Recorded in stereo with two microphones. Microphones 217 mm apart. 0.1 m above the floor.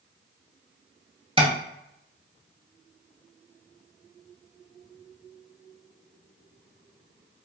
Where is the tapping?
25° right (ahead or behind), 0.7 m.